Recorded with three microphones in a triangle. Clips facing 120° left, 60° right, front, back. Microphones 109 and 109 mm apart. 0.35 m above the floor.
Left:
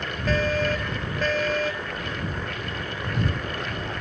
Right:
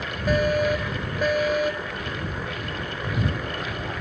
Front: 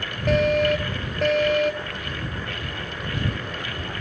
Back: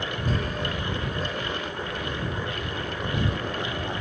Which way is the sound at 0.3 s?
15° left.